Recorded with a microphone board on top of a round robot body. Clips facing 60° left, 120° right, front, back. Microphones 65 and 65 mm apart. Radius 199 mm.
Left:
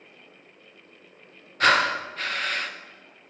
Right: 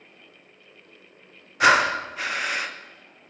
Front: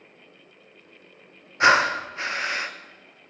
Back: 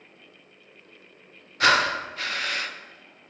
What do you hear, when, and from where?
1.6 s breathing: 50° right, 0.6 m